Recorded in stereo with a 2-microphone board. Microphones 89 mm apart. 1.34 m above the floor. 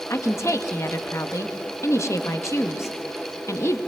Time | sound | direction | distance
0.1 | a woman speaking | 35° left (ahead or behind) | 1.9 m